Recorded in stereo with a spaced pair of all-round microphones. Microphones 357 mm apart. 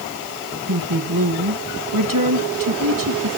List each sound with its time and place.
0.7 s a woman speaking: 65° right (ahead or behind), 1.6 m